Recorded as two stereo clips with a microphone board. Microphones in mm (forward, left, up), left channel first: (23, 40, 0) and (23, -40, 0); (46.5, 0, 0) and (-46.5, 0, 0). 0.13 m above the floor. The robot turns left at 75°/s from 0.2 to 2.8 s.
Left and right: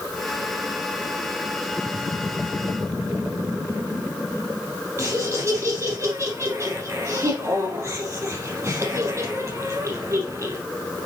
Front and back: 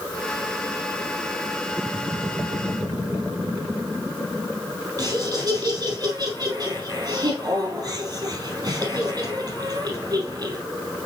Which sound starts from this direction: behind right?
Laughter, at 5.0 s.